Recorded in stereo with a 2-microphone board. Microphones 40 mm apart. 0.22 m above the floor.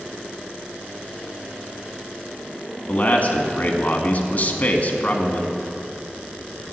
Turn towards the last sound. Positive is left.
turn(degrees=40)  # may be behind; listen again after turning